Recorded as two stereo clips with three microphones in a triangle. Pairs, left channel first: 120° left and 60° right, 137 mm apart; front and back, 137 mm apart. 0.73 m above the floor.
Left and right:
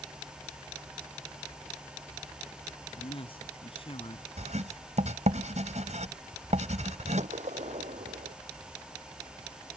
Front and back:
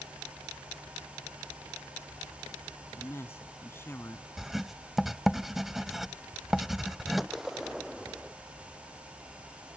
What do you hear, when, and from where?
3.0 s a man speaking: 75° left
4.4 s writing: 90° right
7.2 s a gunshot: 90° right